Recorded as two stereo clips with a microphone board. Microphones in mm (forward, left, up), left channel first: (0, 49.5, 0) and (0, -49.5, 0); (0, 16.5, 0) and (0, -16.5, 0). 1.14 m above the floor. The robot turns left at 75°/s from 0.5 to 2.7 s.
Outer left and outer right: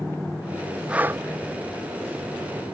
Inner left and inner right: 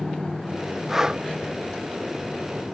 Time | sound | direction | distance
0.9 | breathing | 10° right (ahead or behind) | 0.5 m